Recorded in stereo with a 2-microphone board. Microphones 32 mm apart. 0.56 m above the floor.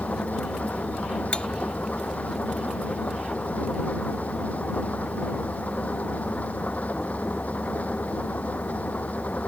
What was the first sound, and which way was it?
An engine running, 55° left (ahead or behind).